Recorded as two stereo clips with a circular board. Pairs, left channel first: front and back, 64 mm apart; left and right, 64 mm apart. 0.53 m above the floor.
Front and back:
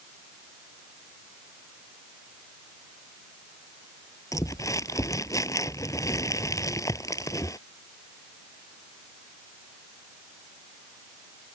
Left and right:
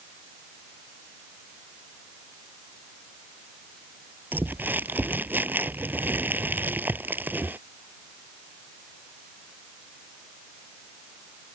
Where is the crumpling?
30° right.